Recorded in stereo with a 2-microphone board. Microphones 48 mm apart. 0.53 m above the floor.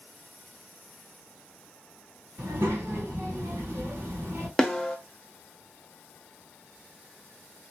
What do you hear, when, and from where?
2.4 s a child speaking: 60° right (ahead or behind), 1.9 m
4.6 s a snare drum: 10° left (ahead or behind), 0.7 m